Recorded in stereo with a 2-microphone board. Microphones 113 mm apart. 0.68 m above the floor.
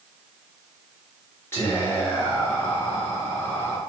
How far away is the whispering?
About 1.4 m.